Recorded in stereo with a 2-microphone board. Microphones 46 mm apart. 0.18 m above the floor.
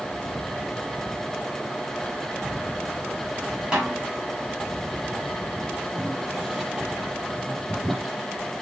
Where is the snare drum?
15° right (ahead or behind), 3.5 m.